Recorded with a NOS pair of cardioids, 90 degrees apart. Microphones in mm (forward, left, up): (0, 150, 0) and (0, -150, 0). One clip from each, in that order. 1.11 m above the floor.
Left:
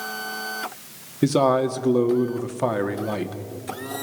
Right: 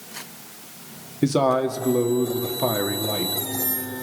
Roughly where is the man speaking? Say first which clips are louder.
Left 1 dB; ahead.